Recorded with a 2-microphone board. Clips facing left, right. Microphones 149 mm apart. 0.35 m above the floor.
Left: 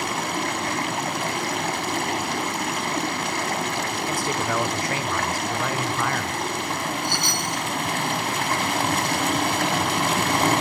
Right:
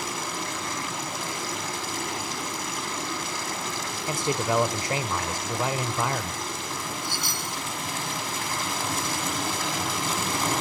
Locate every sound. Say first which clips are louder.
0.0 s running water: left 6 dB; 65° left (ahead or behind), 2.5 m
4.1 s a man speaking: right 3 dB; 20° right (ahead or behind), 1.2 m
7.0 s a chime: left 6 dB; 5° right (ahead or behind), 0.8 m